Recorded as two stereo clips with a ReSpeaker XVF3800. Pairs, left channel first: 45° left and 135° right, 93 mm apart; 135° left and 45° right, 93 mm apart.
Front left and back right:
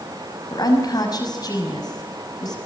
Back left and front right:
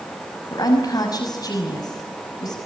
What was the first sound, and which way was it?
A woman speaking, 90° left.